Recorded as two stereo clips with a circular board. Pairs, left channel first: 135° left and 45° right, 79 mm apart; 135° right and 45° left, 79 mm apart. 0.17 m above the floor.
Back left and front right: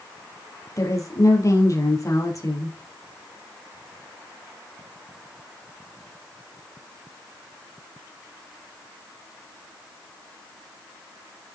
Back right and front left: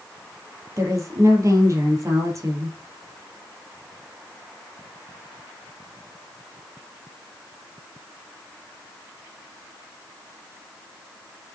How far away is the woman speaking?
About 4 m.